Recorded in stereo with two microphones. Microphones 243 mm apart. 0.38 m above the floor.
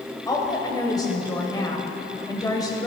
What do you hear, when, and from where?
0.3 s a woman speaking: 15° left (ahead or behind), 1.6 m